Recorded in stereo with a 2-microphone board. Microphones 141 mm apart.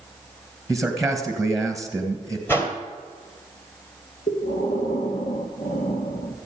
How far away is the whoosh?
About 2 m.